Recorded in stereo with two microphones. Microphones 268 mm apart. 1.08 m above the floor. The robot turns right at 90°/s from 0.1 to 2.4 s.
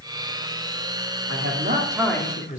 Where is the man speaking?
70° right, 3 m; by 2.6 s 30° left, 3 m.